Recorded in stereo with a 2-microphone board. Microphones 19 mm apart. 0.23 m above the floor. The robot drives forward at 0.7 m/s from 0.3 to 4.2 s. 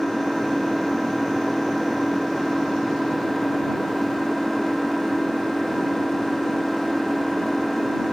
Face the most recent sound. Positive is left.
turn(degrees=-10)  # may be behind; listen again after turning